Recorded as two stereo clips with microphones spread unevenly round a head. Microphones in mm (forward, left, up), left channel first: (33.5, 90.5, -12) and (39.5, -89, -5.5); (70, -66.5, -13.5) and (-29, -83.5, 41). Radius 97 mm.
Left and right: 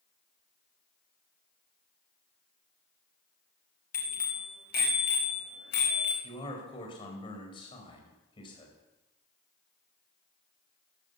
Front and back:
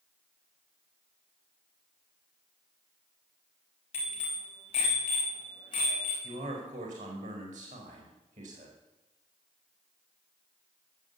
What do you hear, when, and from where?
3.9 s a bicycle bell: 50° left, 5.5 m; by 6.1 s 75° left, 4.5 m
6.2 s a man speaking: 160° left, 4.5 m